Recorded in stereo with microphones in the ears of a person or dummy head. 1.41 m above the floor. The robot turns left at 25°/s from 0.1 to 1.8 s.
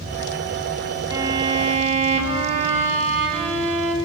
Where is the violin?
20° right (ahead or behind), 1.9 m; by 4.0 s 35° right (ahead or behind), 1.9 m.